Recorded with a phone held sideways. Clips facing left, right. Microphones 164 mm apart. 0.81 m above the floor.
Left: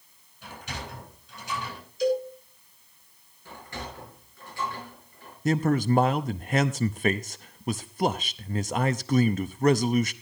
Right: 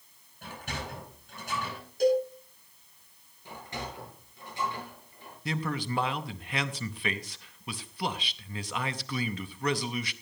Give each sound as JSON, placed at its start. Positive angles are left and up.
{"t": 0.4, "sound": "a sliding door", "side_deg": -50, "distance_m": 10.0}
{"t": 2.0, "sound": "a cowbell", "side_deg": -55, "distance_m": 6.5}
{"t": 3.5, "sound": "a sliding door", "side_deg": -20, "distance_m": 8.0}
{"t": 5.5, "sound": "a man speaking", "side_deg": 45, "distance_m": 0.6}